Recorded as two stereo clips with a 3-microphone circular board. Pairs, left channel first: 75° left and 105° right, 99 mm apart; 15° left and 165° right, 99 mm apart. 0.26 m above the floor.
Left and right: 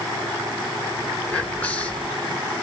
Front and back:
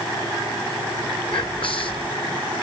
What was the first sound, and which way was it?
Whispering, straight ahead.